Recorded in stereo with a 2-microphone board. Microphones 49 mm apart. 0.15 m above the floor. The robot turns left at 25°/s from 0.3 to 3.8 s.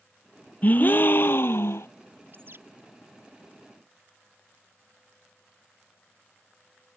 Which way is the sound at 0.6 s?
145° left.